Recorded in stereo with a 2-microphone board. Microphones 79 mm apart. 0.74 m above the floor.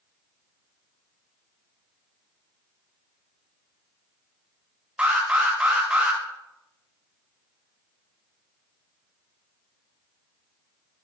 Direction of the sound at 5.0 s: 15° right (ahead or behind).